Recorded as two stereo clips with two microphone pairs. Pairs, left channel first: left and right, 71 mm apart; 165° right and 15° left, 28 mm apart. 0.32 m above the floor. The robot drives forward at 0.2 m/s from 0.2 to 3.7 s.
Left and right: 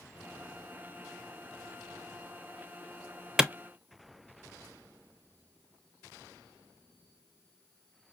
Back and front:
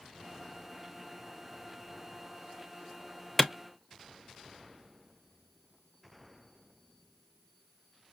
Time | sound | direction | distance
3.4 | a clap | 155° right | 0.6 m